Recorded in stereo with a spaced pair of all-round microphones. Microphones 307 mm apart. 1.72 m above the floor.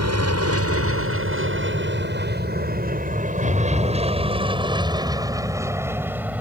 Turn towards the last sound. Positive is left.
turn(degrees=-5)  # may be behind; listen again after turning